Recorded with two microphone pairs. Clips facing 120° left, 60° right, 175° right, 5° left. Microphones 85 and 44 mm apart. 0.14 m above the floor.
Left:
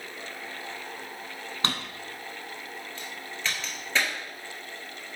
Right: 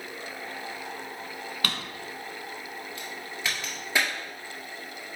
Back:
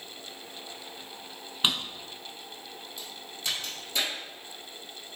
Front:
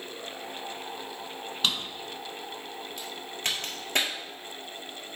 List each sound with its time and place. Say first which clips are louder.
1.6 s a drawer: left 3 dB, back 1 dB; 145° left, 0.8 m
3.0 s a crack: even, front 5 dB; 20° left, 1.6 m